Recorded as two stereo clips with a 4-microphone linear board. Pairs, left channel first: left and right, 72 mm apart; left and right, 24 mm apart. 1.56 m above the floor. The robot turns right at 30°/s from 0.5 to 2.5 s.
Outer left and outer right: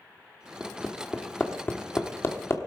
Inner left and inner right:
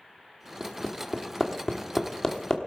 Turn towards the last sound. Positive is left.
turn(degrees=35)  # may be behind; listen again after turning